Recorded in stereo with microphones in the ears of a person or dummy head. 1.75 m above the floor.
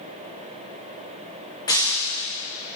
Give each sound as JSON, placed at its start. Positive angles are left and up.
{"t": 1.7, "sound": "breaking glass", "side_deg": 20, "distance_m": 8.5}